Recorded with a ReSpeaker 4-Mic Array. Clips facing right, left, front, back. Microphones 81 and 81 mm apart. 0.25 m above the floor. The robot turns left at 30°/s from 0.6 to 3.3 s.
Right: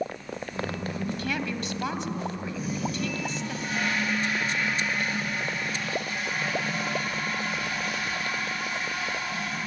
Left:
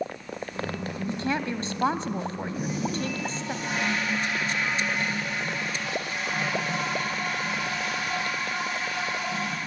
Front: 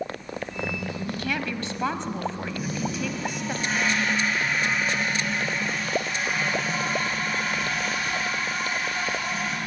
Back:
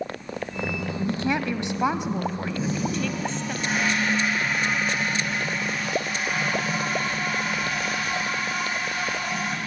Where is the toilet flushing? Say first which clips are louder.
Left 3 dB, back 3 dB; 120° left, 10 m; by 9.6 s 95° left, 10 m.